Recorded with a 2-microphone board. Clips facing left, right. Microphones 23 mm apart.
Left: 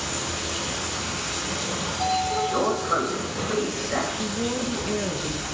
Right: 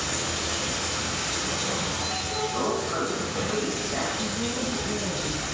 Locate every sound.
0.0 s running water: 30° right (ahead or behind), 4 m
1.9 s a sliding door: 80° left, 2.5 m
4.1 s a woman speaking: 40° left (ahead or behind), 1.0 m